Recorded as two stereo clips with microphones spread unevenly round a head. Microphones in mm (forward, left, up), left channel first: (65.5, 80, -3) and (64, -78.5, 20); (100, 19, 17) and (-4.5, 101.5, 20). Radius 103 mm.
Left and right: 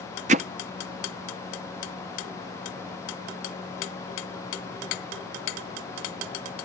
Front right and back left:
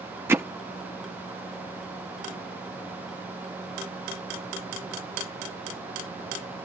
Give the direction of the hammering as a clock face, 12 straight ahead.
5 o'clock.